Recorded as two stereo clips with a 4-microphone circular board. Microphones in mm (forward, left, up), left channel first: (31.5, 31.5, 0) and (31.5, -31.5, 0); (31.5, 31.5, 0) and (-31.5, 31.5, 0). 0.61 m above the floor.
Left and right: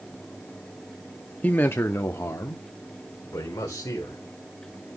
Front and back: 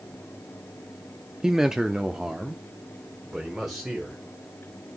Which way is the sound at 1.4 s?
110° left.